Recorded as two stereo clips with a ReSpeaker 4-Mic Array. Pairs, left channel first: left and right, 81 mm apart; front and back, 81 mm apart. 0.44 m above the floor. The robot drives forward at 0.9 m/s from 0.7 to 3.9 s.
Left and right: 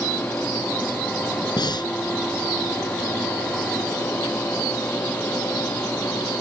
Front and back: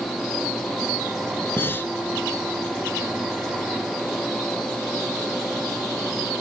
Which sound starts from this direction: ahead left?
Breathing, at 1.6 s.